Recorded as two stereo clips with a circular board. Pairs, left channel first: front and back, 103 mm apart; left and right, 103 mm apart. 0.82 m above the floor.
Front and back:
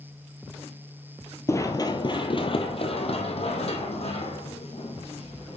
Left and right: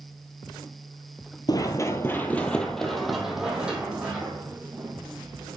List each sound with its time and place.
1.5 s running footsteps: 55° left, 1.1 m; by 5.6 s 20° right, 3.5 m